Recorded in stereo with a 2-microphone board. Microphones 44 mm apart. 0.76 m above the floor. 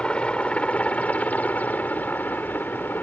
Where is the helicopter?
25° left (ahead or behind); by 3.0 s 50° left (ahead or behind).